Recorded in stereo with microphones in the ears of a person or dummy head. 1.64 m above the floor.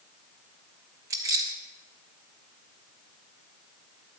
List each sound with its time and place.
1.1 s keys jangling: 10° right (ahead or behind), 0.8 m